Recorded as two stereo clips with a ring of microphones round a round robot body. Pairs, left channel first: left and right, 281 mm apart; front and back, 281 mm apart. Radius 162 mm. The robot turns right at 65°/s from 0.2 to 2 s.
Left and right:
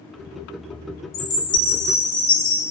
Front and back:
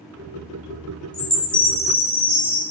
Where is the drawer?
No drawer in this recording.